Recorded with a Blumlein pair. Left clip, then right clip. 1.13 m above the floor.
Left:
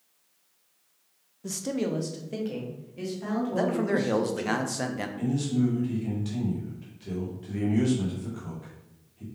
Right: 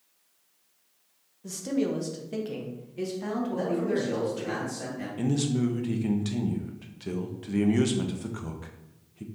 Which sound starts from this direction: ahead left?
A man speaking, at 3.5 s.